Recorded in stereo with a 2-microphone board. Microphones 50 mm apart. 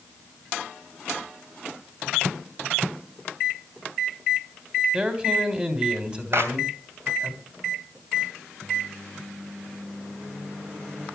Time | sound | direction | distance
4.9 | a man speaking | 20° right (ahead or behind) | 3 m
6.3 | a clap | 60° right (ahead or behind) | 2.5 m